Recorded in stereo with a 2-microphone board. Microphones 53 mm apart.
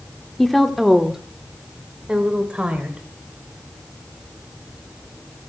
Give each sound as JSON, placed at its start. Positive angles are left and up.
{"t": 0.4, "sound": "a woman speaking", "side_deg": 5, "distance_m": 1.0}